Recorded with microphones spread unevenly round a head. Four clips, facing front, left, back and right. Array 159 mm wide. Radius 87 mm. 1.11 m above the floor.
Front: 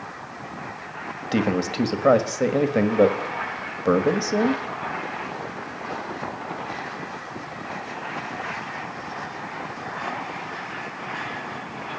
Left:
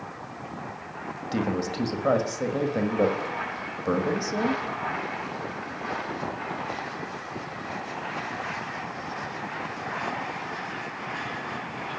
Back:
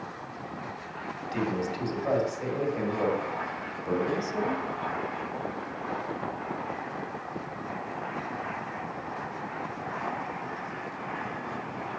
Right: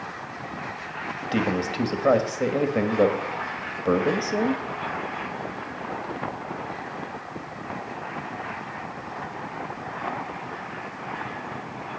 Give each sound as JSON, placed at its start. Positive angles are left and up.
{"t": 1.3, "sound": "a man speaking", "azimuth_deg": -15, "distance_m": 1.4}